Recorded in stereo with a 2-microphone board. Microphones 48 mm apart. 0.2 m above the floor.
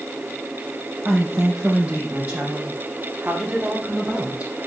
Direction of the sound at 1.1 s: 30° right (ahead or behind).